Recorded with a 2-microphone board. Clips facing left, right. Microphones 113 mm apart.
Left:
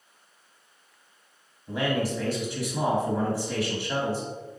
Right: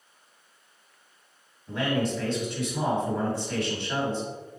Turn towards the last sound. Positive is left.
turn(degrees=10)  # may be behind; listen again after turning